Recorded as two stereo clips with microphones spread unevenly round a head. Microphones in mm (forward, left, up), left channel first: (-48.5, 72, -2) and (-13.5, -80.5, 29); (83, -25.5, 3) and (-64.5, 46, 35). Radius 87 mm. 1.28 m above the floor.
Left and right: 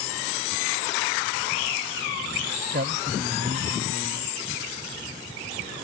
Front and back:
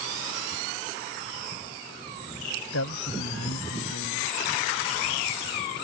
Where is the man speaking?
30° right.